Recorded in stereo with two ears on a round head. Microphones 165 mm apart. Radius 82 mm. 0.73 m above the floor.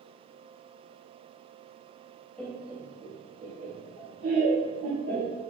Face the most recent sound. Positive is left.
turn(degrees=-55)  # may be behind; listen again after turning